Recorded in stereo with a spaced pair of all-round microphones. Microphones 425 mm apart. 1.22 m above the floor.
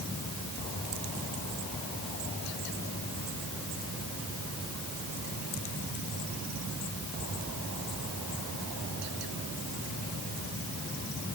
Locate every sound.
Only background noise.